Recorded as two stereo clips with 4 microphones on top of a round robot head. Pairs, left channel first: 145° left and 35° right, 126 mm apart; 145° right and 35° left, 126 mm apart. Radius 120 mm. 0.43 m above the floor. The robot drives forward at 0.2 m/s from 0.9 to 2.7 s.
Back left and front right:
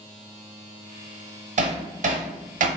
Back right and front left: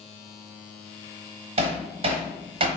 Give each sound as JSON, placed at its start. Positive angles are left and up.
{"t": 1.6, "sound": "hammering", "azimuth_deg": -10, "distance_m": 0.8}